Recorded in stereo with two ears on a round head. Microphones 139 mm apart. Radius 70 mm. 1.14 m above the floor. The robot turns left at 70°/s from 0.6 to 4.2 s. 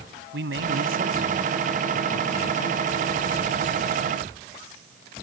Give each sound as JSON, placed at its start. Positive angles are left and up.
{"t": 0.3, "sound": "a man speaking", "azimuth_deg": -95}